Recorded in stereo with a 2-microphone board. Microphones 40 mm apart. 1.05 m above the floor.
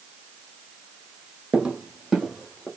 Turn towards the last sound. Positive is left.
turn(degrees=10)  # may be behind; listen again after turning